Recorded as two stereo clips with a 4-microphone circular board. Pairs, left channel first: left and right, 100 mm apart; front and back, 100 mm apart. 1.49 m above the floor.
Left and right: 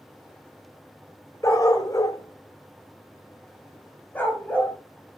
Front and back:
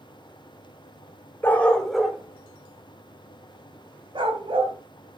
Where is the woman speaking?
No woman speaking in this recording.